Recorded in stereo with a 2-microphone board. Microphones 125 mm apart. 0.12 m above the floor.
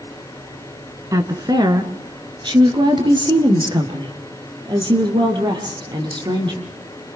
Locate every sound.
1.1 s a woman speaking: 25° right (ahead or behind), 1.5 m; by 6.6 s 35° right (ahead or behind), 5 m